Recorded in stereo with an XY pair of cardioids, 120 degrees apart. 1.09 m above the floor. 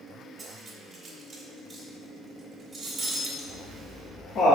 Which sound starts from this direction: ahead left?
Laughter, at 3.4 s.